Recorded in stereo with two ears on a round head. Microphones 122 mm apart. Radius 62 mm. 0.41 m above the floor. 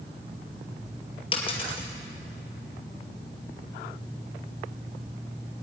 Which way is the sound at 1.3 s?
45° left (ahead or behind).